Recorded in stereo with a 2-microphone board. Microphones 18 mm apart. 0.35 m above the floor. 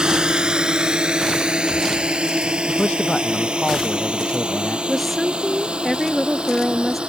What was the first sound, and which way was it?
A drone, 50° right (ahead or behind).